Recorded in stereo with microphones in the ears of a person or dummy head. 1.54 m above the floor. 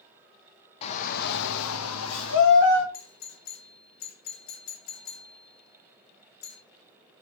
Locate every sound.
0.8 s a shout: 35° left (ahead or behind), 0.7 m; by 2.8 s 60° left (ahead or behind), 1.0 m
2.9 s a doorbell: 45° left (ahead or behind), 0.6 m